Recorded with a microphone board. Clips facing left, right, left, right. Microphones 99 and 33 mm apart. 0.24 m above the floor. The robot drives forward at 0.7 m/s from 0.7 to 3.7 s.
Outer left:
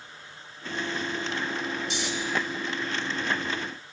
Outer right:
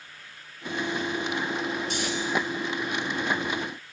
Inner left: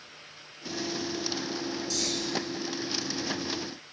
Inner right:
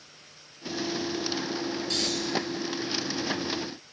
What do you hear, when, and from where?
1.9 s snoring: 50° right (ahead or behind), 3 m; by 2.1 s 55° right (ahead or behind), 3 m